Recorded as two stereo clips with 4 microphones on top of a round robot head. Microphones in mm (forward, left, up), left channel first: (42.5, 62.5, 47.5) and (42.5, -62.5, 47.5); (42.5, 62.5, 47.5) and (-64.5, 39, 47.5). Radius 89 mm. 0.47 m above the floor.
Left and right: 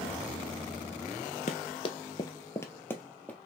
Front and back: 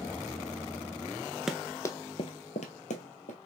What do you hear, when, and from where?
1.5 s running footsteps: 110° left, 0.5 m; by 3.4 s 10° left, 1.2 m